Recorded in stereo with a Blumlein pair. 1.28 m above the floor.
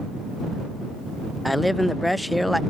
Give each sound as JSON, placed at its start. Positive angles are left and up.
{"t": 1.4, "sound": "a man speaking", "azimuth_deg": 5}